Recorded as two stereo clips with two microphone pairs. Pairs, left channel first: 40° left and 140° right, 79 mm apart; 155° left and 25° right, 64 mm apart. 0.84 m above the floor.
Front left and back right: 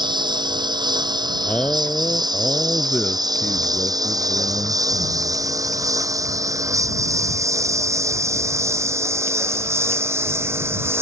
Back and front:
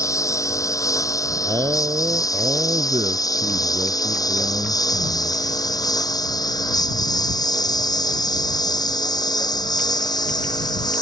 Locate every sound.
0.0 s a lawn mower: 165° right; by 11.0 s 160° left
1.4 s a man speaking: 35° right